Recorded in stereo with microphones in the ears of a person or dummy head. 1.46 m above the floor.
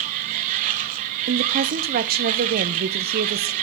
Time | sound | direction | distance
0.0 | a machine running | 45° right (ahead or behind) | 1.4 m
1.3 | a woman speaking | 45° right (ahead or behind) | 1.0 m